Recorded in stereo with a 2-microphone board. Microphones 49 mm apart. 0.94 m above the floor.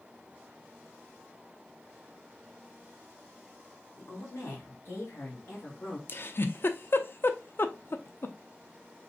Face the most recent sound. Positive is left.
turn(degrees=50)  # may be behind; listen again after turning